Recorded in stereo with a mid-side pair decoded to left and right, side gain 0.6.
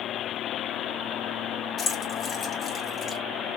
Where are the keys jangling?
40° left, 1.8 m.